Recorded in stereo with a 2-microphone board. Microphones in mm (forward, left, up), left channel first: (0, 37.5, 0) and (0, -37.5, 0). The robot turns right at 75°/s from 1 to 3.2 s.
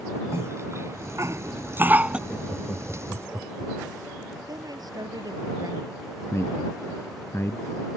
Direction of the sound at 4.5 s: 60° right (ahead or behind).